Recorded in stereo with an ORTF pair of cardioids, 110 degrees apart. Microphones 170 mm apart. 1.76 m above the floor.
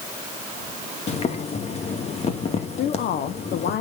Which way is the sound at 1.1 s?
40° left.